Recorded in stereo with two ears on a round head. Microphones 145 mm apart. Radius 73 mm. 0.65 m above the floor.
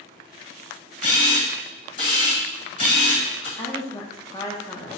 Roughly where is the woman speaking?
Left.